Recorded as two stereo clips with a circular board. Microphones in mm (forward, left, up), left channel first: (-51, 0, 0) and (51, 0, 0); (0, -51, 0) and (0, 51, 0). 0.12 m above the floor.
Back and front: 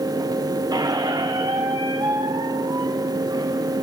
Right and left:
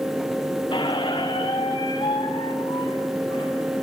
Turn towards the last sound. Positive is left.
turn(degrees=-50)